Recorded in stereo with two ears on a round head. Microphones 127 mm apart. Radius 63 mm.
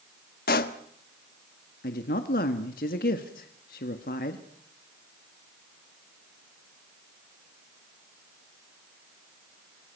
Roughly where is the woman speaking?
Left.